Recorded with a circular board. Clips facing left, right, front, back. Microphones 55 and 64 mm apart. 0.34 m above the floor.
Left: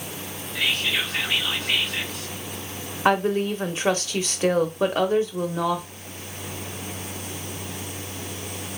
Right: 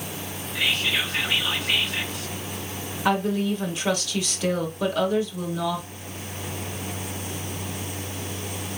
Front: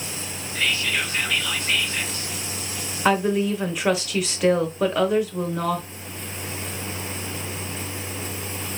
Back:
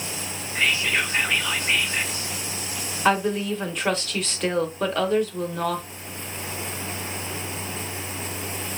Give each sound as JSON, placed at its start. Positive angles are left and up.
{"t": 0.6, "sound": "whispering", "azimuth_deg": -175, "distance_m": 0.9}
{"t": 3.0, "sound": "a woman speaking", "azimuth_deg": 75, "distance_m": 0.9}